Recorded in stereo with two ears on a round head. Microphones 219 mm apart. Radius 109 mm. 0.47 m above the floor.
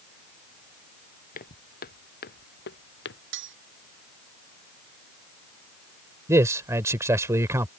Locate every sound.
1.4 s footsteps: 35° left (ahead or behind); by 3.2 s 50° left (ahead or behind)
3.3 s cutlery clinking: 50° right (ahead or behind)
6.3 s a man speaking: 10° right (ahead or behind)